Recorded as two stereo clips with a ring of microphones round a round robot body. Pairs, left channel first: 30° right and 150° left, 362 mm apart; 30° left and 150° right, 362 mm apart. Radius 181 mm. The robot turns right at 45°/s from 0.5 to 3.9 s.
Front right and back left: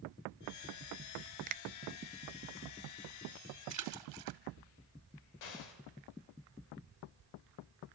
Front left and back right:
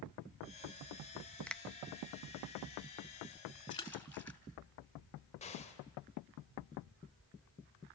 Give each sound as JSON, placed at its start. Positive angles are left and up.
{"t": 1.5, "sound": "a finger snap", "azimuth_deg": 110, "distance_m": 0.6}
{"t": 3.7, "sound": "a splash", "azimuth_deg": 105, "distance_m": 2.5}
{"t": 5.4, "sound": "an explosion", "azimuth_deg": -45, "distance_m": 3.0}